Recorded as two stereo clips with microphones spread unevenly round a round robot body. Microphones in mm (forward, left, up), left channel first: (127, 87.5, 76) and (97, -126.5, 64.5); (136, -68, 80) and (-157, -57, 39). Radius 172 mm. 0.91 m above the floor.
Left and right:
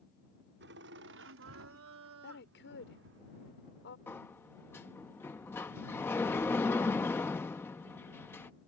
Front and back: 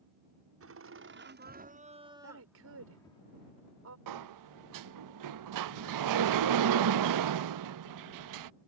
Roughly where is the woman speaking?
Behind left.